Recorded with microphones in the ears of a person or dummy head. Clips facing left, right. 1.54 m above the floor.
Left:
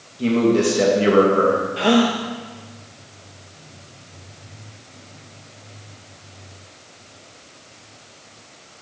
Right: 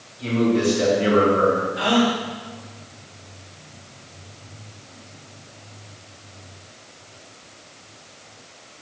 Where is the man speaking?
55° left (ahead or behind), 2.5 m.